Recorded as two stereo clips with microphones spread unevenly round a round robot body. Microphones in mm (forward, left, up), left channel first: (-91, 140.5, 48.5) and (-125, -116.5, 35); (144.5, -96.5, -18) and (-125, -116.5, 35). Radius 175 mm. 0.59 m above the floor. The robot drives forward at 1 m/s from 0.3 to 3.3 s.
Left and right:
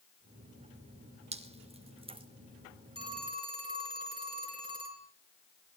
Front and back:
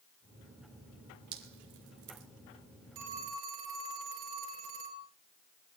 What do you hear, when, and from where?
1.3 s dripping: 160° right, 3 m; by 2.3 s 165° right, 3.5 m
3.0 s a phone ringing: 170° right, 5.5 m